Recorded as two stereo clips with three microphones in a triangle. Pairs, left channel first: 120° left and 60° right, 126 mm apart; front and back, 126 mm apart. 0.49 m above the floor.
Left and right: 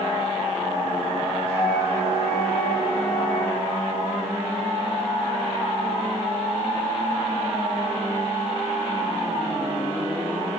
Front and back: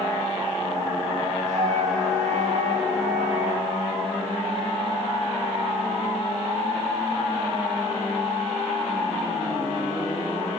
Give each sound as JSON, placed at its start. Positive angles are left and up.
{"t": 1.5, "sound": "a flute", "azimuth_deg": 160, "distance_m": 5.5}